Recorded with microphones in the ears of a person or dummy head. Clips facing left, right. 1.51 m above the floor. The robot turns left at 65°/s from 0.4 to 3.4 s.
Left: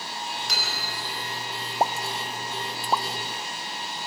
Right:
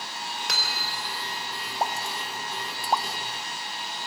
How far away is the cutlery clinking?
About 3.5 m.